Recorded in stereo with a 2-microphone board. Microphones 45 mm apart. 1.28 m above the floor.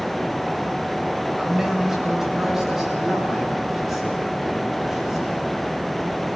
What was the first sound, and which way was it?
A man speaking, 10° right (ahead or behind).